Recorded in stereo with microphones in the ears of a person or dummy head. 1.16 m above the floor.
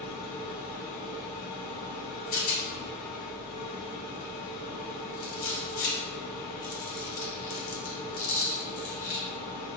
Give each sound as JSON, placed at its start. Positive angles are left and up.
{"t": 0.0, "sound": "a machine running", "side_deg": 55, "distance_m": 1.3}
{"t": 2.3, "sound": "a rattle", "side_deg": 80, "distance_m": 1.0}